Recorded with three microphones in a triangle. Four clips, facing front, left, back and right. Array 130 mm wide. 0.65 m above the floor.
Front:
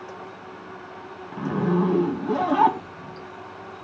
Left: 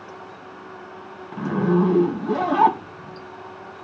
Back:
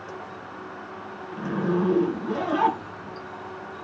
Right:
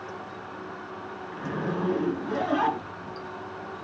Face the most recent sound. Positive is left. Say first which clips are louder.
# left 11 dB, front 2 dB
turn(degrees=60)